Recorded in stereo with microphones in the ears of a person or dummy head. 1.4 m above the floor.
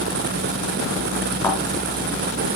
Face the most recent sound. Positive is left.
turn(degrees=25)  # may be behind; listen again after turning